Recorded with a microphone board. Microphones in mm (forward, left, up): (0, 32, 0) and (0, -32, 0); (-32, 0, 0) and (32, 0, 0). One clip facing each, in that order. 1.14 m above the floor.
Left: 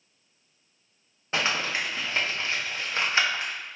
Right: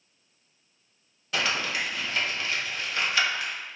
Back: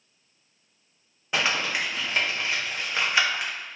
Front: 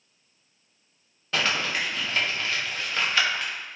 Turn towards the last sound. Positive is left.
turn(degrees=120)